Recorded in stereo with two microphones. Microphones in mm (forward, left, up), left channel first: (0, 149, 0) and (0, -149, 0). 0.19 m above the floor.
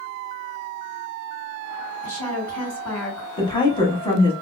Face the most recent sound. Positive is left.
turn(degrees=15)  # may be behind; listen again after turning